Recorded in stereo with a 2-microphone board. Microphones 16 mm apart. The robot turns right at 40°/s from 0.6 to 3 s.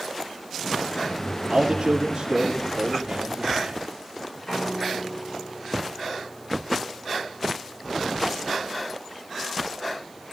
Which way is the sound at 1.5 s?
140° right.